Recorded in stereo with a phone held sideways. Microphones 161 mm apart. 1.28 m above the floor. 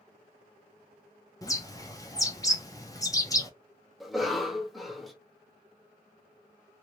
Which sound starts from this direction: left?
A bird, at 1.4 s.